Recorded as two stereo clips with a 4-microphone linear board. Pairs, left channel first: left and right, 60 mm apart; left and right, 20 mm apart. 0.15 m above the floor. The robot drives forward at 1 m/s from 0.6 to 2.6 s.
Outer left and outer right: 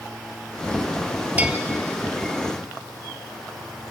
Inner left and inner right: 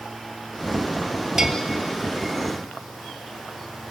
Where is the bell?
25° right (ahead or behind), 1.8 m.